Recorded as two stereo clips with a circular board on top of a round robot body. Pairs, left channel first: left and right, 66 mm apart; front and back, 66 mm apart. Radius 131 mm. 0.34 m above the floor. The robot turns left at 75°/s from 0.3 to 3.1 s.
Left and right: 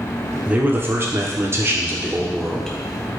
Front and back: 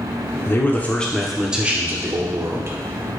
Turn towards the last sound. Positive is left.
turn(degrees=135)